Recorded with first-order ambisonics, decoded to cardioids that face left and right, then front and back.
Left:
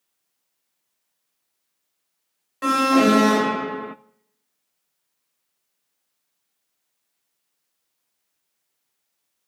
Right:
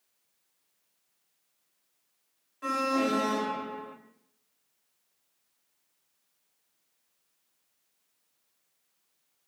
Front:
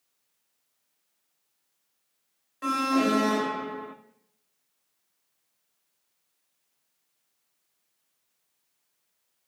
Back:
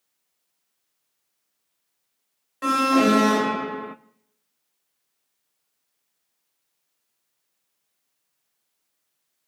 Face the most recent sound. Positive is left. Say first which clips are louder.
# left 11 dB, back 6 dB
turn(degrees=115)